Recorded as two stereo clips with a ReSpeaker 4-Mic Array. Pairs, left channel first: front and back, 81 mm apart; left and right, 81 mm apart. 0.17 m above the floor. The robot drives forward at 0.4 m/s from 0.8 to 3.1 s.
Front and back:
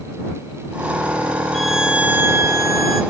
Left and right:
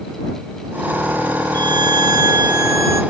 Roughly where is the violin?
Right.